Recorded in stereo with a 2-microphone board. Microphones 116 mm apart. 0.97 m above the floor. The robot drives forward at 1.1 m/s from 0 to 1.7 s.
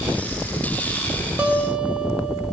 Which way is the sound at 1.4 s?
10° right (ahead or behind).